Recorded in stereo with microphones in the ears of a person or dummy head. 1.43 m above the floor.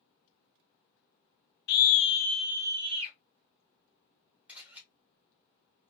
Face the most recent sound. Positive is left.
turn(degrees=-5)  # may be behind; listen again after turning